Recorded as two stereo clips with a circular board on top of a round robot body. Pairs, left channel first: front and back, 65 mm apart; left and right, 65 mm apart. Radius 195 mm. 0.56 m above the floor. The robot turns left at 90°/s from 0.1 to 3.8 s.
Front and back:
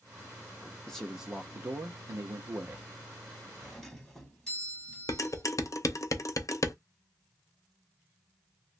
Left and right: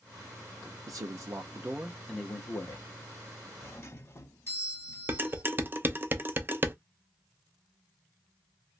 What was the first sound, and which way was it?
A man speaking, 75° right.